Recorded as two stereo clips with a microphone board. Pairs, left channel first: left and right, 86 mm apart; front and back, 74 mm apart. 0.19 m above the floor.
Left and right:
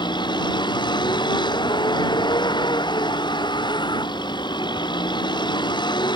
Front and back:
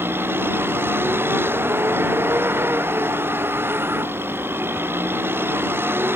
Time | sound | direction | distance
0.0 | a vehicle | 120° left | ?